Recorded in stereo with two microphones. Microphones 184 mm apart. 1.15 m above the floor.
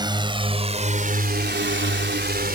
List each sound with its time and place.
0.0 s a drone: 25° right (ahead or behind); by 2.6 s 55° right (ahead or behind)